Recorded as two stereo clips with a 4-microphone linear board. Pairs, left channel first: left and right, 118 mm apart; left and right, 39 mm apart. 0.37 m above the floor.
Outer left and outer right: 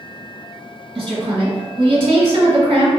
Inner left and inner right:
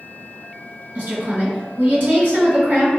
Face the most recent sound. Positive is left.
turn(degrees=-55)  # may be behind; listen again after turning